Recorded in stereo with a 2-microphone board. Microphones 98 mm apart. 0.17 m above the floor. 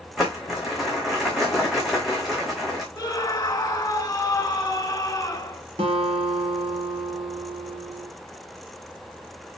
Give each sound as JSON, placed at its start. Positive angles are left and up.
{"t": 0.2, "sound": "crumpling", "side_deg": 0, "distance_m": 5.5}
{"t": 3.0, "sound": "a scream", "side_deg": 25, "distance_m": 1.3}
{"t": 5.8, "sound": "a guitar", "side_deg": -65, "distance_m": 3.5}